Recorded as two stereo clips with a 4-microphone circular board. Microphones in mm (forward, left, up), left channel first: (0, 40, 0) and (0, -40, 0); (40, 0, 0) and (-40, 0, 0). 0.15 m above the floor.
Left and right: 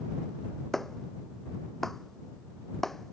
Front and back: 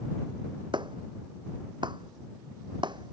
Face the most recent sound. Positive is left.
turn(degrees=175)